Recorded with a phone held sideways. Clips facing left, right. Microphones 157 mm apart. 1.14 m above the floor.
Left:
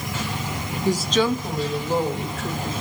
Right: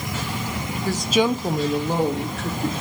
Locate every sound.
0.8 s a woman speaking: 20° left (ahead or behind), 0.5 m; by 2.7 s 70° right (ahead or behind), 1.7 m